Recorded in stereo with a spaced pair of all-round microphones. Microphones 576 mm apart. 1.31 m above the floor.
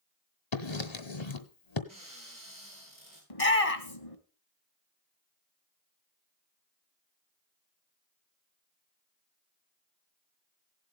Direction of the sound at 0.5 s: 50° left (ahead or behind).